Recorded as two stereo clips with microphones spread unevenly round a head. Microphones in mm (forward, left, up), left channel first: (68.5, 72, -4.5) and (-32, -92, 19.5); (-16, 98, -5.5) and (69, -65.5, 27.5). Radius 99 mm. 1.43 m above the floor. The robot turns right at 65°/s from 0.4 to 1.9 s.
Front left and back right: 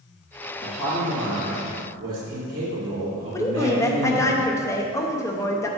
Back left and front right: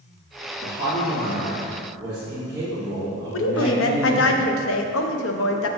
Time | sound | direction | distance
0.6 | a man speaking | 120° left | 2.5 m
3.3 | a woman speaking | 135° left | 0.7 m